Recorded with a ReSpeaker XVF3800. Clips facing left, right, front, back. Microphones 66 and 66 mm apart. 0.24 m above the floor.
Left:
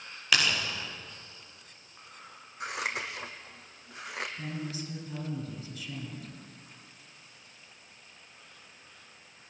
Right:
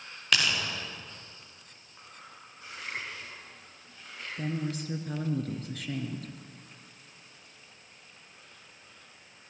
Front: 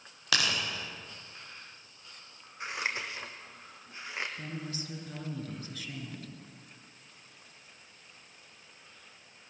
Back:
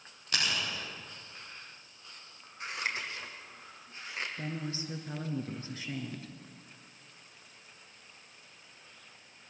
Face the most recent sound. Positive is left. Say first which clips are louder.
# right 4 dB, back 2 dB
turn(degrees=-120)